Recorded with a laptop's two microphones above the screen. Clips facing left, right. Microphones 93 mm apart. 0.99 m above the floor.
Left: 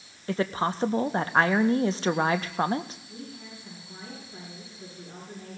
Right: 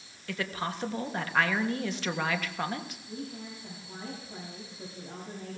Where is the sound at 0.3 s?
35° left (ahead or behind), 0.5 m.